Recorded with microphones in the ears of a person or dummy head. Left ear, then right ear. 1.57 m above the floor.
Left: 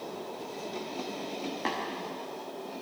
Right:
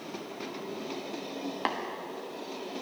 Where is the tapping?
20° right (ahead or behind), 1.0 m.